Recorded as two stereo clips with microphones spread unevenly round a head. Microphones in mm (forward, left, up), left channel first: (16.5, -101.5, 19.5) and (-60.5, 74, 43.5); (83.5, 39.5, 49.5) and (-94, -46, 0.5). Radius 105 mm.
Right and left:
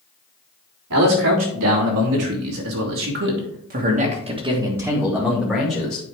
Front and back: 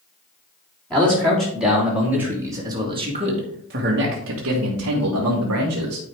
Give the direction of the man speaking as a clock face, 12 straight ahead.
8 o'clock.